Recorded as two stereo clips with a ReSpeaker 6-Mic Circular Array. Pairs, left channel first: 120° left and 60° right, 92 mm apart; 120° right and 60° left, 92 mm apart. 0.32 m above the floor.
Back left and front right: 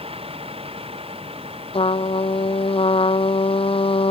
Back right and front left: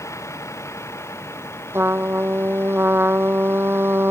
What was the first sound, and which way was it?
A vehicle, 60° right.